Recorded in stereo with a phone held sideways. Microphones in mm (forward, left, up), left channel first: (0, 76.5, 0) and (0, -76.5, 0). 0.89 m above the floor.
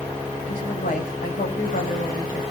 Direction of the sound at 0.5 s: 75° left (ahead or behind).